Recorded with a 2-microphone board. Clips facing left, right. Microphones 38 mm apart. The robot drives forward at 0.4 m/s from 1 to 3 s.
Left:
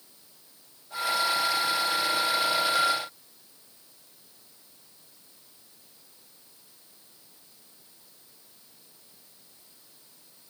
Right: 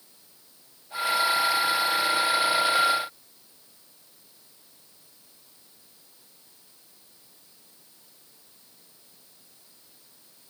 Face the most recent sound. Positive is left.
No sound to turn to.